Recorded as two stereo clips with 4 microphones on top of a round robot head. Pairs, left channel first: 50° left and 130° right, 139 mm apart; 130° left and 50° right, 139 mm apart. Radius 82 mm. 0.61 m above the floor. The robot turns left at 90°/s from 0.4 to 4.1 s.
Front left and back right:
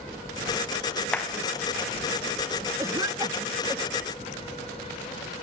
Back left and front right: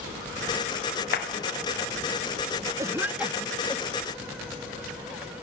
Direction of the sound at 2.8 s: 85° right.